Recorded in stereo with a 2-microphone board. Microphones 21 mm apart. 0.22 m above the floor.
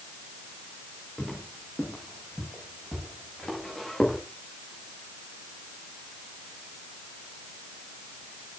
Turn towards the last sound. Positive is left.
turn(degrees=15)  # may be behind; listen again after turning